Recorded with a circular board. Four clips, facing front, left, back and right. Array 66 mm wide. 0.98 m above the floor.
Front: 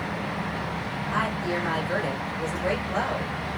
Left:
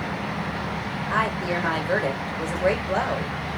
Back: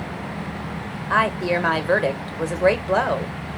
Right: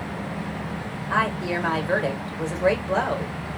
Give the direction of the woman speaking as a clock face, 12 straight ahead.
6 o'clock.